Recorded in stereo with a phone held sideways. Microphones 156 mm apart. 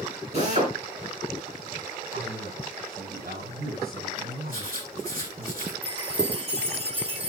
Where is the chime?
40° right (ahead or behind), 1.6 m.